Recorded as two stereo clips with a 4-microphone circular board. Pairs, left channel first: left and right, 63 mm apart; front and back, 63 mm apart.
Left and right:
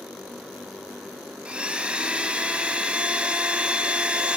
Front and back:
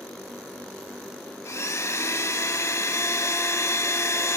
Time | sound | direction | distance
1.4 | a blender | 20° right | 1.0 m